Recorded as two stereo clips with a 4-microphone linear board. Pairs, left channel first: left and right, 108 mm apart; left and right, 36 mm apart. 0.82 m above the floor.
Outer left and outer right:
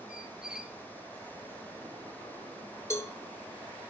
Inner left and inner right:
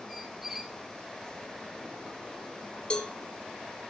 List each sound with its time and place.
0.1 s a squeak: 10° right (ahead or behind), 0.9 m
2.9 s a cowbell: 25° left (ahead or behind), 1.4 m